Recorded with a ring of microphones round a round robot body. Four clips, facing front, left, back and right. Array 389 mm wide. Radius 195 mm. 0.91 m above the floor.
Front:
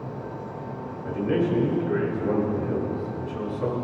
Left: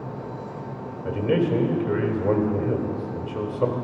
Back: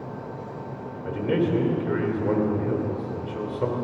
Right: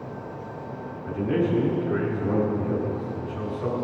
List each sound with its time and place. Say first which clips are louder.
1.1 s a man speaking: left 2 dB, even; 115° left, 3 m